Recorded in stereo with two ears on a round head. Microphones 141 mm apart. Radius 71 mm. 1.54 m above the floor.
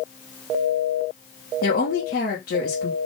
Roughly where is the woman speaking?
Left.